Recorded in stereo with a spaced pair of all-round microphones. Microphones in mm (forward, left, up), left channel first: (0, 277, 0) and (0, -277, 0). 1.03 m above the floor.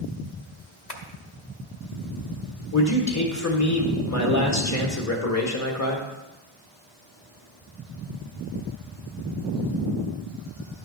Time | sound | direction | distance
0.9 | tapping | 45° left (ahead or behind) | 1.1 m
2.7 | a man speaking | 30° left (ahead or behind) | 1.1 m